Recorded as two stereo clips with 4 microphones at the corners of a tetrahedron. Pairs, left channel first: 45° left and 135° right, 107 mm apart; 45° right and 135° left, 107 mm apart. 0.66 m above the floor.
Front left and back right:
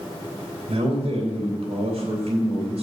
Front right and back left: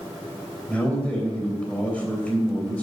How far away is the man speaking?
About 3 m.